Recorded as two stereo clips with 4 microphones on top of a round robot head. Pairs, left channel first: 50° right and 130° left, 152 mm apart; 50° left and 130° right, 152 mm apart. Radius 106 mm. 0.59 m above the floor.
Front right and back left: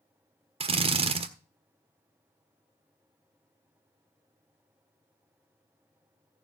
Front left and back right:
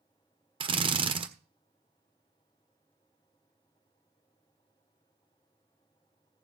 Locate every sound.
0.6 s a drill: straight behind, 1.6 m